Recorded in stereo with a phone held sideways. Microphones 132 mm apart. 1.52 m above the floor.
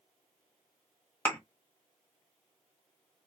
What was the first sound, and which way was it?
A thud, 15° left (ahead or behind).